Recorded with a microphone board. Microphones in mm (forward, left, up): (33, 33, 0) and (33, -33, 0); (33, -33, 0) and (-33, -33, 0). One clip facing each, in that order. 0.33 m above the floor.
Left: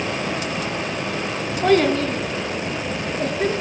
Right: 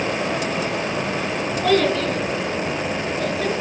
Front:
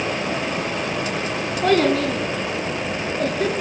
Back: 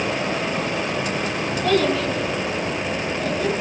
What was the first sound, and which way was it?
A child speaking, 40° left.